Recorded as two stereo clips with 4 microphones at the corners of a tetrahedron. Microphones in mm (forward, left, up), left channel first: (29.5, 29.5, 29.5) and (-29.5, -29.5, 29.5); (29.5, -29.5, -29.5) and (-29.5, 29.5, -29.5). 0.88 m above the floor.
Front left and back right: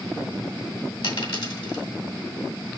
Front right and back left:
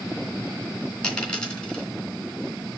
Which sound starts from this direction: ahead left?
A dropped coin, at 1.0 s.